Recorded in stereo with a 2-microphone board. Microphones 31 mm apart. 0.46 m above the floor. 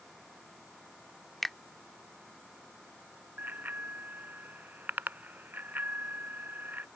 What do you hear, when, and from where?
1.4 s a finger snap: 5° left (ahead or behind)
3.4 s a bicycle bell: 80° right